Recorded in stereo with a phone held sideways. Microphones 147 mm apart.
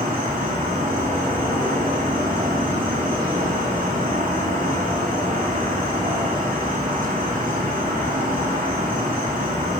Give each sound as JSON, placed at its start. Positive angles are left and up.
{"t": 0.0, "sound": "an insect", "side_deg": -75, "distance_m": 3.0}